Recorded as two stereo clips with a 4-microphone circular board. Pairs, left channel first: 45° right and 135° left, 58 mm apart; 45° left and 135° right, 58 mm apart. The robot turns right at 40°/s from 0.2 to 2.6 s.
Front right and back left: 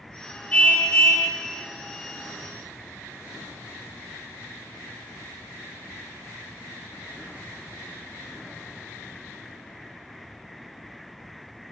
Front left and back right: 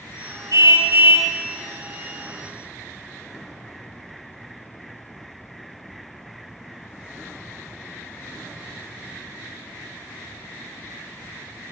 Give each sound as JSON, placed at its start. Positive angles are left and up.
{"t": 0.5, "sound": "a car horn", "azimuth_deg": -115, "distance_m": 4.0}